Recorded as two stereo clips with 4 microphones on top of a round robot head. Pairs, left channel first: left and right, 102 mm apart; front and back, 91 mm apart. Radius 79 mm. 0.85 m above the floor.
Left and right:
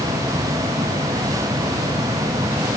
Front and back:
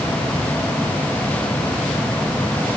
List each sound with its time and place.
Only background noise.